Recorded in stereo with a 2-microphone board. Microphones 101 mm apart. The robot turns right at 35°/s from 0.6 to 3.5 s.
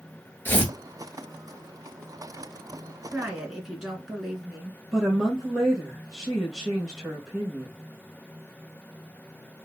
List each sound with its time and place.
0.5 s tearing paper: 20° left (ahead or behind), 1.2 m; by 0.7 s 25° left (ahead or behind), 1.2 m
3.1 s a woman speaking: 15° right (ahead or behind), 1.9 m; by 4.8 s 5° right (ahead or behind), 1.9 m
4.9 s a woman speaking: 5° right (ahead or behind), 2 m